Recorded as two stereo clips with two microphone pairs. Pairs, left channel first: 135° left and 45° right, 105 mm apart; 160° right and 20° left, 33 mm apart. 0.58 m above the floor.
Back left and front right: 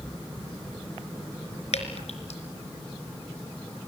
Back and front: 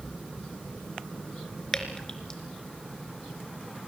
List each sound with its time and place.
1.7 s dripping: 125° left, 3.5 m